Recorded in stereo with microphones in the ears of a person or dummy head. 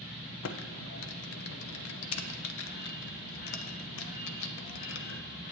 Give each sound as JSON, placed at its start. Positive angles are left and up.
{"t": 0.4, "sound": "typing on a keyboard", "side_deg": 75, "distance_m": 0.6}